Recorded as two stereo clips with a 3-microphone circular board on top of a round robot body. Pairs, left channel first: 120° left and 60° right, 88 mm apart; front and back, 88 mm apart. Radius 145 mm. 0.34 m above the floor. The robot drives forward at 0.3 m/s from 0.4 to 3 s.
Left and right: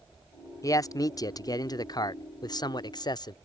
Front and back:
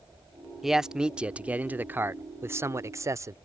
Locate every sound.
0.6 s a man speaking: 95° left; by 3.4 s 135° left